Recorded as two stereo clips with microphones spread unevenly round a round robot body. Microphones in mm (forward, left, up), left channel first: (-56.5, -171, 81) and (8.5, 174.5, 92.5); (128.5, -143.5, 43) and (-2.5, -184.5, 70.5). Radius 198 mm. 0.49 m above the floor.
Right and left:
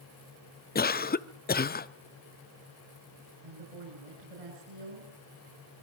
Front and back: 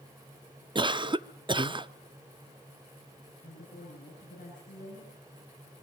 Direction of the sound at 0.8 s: 120° right.